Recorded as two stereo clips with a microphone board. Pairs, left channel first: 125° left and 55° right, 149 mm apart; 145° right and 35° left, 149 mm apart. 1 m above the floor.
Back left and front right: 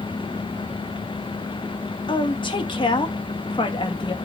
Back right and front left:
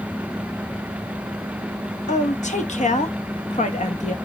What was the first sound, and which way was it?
A woman speaking, straight behind.